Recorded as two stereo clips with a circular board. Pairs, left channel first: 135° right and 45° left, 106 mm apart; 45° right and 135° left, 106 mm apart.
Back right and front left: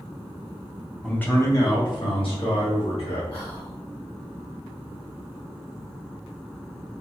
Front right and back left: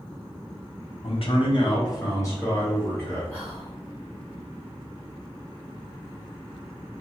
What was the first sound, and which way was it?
A man speaking, 55° right.